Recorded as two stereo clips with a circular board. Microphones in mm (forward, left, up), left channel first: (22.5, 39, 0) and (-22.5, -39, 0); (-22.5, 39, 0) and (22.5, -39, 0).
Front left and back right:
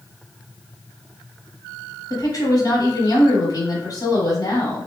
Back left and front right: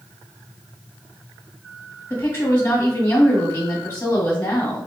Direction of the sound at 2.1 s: 65° left.